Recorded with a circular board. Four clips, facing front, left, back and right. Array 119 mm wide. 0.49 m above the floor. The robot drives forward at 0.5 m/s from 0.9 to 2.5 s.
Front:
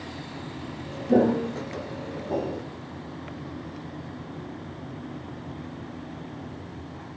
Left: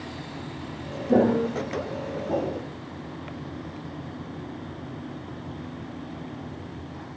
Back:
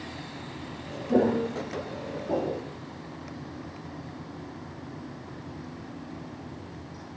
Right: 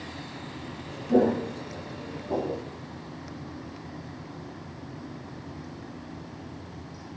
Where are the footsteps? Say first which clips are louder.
Left 2 dB, front 3 dB; 45° left, 0.9 m; by 2.6 s 145° left, 1.2 m.